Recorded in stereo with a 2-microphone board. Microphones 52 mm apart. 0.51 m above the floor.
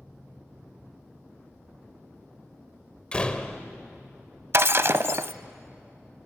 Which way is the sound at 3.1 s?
20° left (ahead or behind).